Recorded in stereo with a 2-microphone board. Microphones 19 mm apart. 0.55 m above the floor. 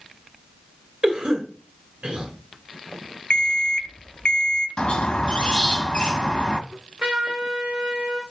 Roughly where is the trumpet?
Right.